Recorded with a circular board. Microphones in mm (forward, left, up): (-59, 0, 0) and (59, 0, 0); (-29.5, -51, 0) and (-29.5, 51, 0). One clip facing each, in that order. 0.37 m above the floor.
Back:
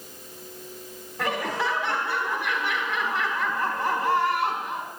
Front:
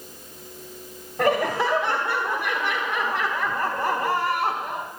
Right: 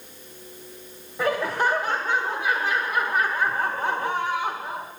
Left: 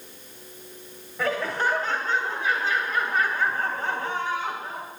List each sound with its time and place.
1.2 s laughter: 20° right, 1.5 m